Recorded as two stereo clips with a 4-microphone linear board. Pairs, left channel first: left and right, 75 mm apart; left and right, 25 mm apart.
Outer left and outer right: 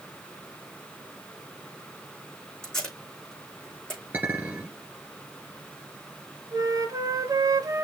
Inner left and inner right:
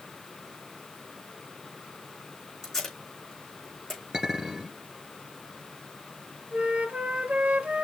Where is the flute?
50° right (ahead or behind), 0.8 m.